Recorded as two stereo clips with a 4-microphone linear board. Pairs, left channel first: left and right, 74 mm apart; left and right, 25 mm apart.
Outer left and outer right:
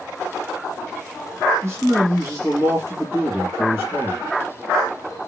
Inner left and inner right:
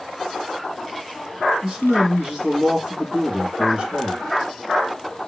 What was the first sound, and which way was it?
A man speaking, 30° right (ahead or behind).